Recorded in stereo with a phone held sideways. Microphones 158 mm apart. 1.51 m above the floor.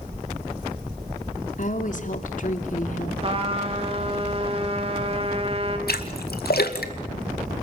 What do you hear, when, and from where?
1.6 s a woman speaking: 55° left (ahead or behind), 3 m
3.2 s a trumpet: 40° right (ahead or behind), 4 m
5.9 s a splash: 80° left, 2 m